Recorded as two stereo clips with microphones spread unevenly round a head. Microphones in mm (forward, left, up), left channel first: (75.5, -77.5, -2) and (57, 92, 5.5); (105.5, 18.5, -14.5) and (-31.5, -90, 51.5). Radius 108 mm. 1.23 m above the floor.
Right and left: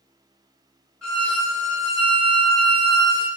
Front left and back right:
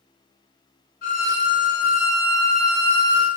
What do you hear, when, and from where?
1.0 s a violin: 5° left, 1.3 m